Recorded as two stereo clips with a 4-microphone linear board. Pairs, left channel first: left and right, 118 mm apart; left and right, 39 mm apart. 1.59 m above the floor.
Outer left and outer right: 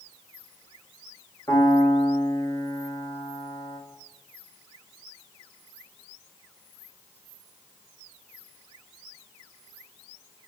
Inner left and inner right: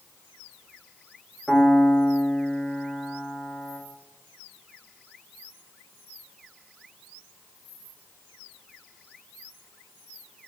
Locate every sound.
1.5 s a piano: 30° left (ahead or behind), 1.3 m